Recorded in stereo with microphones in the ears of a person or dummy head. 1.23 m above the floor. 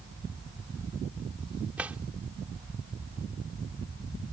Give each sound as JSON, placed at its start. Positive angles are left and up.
{"t": 1.8, "sound": "a drawer", "side_deg": -10}